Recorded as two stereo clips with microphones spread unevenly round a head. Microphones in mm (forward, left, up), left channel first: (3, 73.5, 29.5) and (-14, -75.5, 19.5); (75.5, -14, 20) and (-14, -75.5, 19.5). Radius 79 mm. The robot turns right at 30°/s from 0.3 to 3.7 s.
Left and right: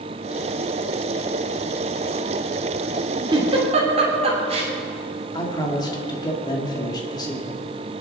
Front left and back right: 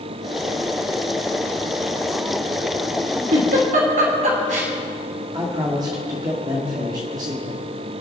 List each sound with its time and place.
3.3 s a giggle: 160° right, 2.5 m; by 4.7 s 150° right, 2.5 m
5.3 s a man speaking: 150° left, 2.5 m